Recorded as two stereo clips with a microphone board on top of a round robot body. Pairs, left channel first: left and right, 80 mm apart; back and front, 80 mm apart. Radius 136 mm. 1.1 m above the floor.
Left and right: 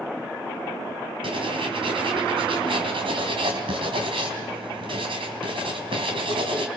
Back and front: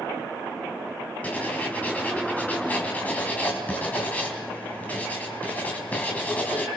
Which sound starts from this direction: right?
Writing, at 1.2 s.